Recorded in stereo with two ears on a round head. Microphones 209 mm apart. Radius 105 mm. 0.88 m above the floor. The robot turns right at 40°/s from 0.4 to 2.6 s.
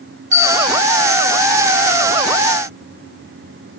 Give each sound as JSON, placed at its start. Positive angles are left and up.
{"t": 0.3, "sound": "a bell", "side_deg": -35, "distance_m": 3.0}